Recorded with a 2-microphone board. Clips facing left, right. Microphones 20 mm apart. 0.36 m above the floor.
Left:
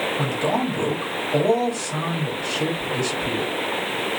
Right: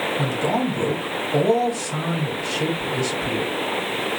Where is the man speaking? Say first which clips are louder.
Right 1 dB; 10° left (ahead or behind), 1.6 m.